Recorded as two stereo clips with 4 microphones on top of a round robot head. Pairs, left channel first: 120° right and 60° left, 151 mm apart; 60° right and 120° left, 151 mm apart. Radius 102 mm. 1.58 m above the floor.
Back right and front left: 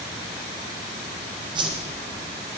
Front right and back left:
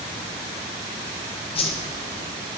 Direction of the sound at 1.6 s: 5° right.